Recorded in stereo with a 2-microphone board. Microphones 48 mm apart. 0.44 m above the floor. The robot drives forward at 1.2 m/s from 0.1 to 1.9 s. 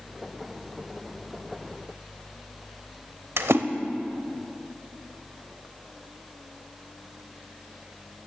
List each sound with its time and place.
3.4 s a splash: 70° right (ahead or behind), 0.7 m